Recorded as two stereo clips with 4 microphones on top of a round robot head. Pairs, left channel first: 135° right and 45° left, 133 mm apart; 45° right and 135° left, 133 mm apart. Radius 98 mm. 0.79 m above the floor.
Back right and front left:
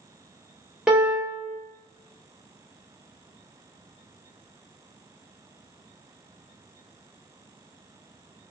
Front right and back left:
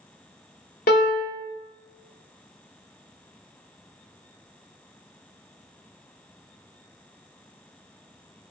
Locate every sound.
0.9 s a piano: 40° right, 0.5 m